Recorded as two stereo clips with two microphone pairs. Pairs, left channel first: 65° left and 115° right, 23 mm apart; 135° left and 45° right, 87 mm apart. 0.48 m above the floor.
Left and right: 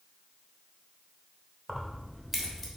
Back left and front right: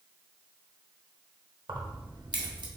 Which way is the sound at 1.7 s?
25° right.